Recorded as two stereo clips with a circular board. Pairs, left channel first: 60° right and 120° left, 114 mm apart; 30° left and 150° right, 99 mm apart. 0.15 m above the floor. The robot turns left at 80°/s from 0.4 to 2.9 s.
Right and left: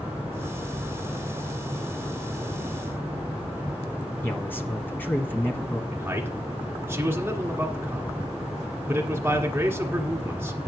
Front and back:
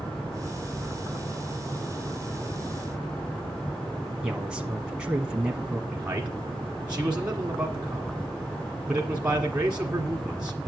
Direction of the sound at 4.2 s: 90° right.